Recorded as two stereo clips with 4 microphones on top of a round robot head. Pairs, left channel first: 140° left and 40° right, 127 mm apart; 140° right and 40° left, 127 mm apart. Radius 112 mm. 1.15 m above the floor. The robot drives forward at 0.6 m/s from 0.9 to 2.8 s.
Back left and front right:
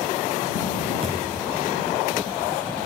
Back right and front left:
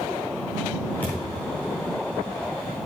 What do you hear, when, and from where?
1.0 s a thud: 65° right, 1.2 m; by 1.6 s 100° right, 1.2 m